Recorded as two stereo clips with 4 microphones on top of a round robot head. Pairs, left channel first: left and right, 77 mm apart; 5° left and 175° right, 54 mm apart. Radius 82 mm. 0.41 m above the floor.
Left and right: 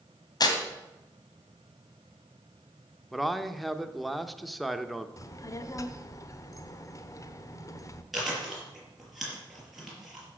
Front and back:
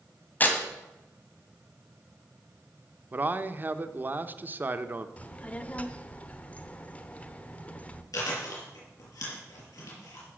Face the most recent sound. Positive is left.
turn(degrees=0)